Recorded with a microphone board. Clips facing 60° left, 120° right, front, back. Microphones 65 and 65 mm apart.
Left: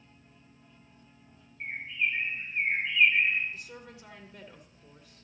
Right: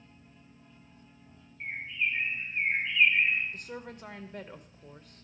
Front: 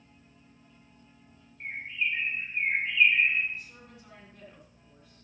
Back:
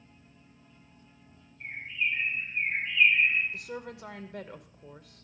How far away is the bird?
About 5.5 m.